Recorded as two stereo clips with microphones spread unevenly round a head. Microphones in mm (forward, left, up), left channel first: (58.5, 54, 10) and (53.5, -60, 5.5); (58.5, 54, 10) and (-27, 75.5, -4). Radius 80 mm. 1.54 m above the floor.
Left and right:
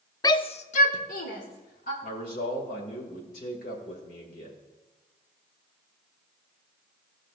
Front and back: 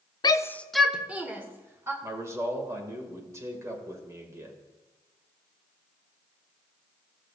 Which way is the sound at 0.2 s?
25° left.